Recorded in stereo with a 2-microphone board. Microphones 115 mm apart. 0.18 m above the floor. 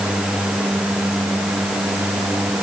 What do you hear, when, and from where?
Only background noise.